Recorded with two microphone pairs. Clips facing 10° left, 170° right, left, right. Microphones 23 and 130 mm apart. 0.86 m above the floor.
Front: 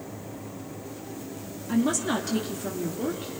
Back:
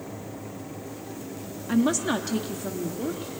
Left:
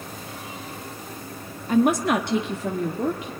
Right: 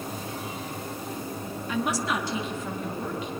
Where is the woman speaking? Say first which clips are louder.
Back 2 dB, left 9 dB; 130° left, 1.1 m; by 3.3 s 95° left, 1.8 m.